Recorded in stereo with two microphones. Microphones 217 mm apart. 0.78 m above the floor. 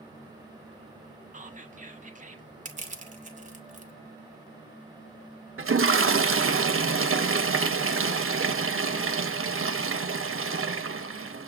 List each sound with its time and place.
1.3 s whispering: 35° right (ahead or behind), 0.8 m
2.6 s crushing: 35° right (ahead or behind), 0.7 m
5.6 s a toilet flushing: 70° right (ahead or behind), 0.5 m